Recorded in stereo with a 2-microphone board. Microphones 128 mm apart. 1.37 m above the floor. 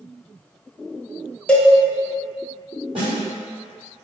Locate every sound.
1.5 s a cowbell: 10° left (ahead or behind), 0.5 m
3.0 s a snare drum: 45° right (ahead or behind), 1.8 m